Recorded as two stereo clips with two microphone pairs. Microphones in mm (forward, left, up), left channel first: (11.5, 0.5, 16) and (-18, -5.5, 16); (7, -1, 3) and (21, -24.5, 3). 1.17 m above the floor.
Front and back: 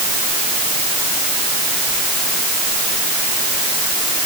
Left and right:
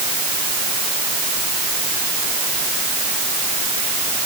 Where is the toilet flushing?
I don't hear a toilet flushing.